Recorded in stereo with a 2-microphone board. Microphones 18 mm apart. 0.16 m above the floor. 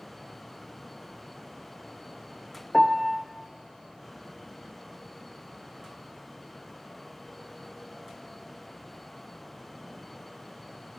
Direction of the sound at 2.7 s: 10° right (ahead or behind).